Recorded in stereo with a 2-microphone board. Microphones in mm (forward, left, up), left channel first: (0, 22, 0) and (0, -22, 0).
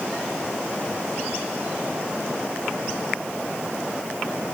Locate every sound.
Only background noise.